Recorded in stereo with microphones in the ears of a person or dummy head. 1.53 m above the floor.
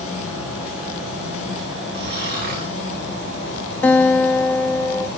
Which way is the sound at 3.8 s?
10° left (ahead or behind).